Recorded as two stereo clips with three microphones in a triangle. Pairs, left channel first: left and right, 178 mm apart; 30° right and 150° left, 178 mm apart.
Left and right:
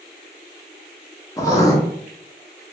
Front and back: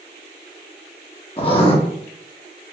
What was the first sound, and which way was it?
Writing, 20° left.